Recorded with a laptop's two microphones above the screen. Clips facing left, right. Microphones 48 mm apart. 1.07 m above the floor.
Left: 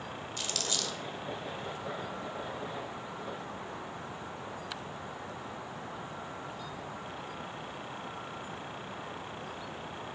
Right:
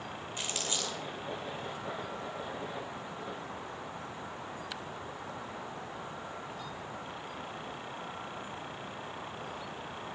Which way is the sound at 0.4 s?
25° right (ahead or behind).